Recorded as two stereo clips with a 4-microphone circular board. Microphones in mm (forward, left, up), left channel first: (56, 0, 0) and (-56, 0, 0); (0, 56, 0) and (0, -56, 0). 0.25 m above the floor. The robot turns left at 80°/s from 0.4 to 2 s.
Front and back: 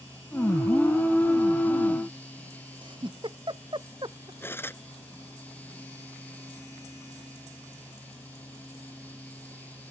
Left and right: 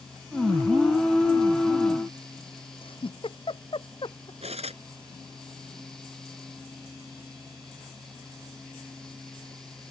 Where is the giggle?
135° left.